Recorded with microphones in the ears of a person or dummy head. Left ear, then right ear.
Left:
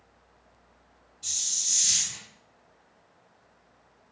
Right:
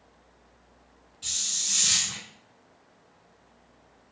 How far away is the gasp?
No gasp in this recording.